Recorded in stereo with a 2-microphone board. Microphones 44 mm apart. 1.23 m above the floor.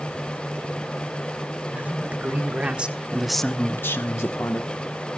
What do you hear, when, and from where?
1.7 s a man speaking: 40° right (ahead or behind), 2.5 m; by 4.7 s 75° left (ahead or behind), 1.4 m